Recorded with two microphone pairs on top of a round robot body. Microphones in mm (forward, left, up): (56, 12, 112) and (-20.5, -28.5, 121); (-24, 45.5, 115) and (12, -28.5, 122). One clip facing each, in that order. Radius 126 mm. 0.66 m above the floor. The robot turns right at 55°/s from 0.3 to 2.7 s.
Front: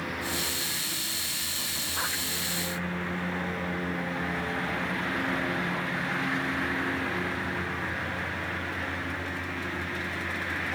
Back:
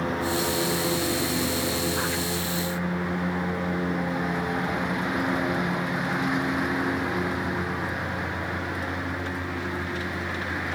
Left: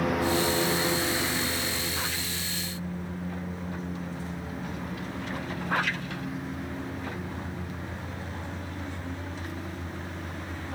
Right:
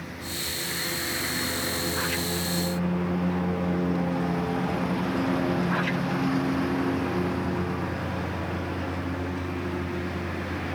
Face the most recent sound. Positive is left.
turn(degrees=-80)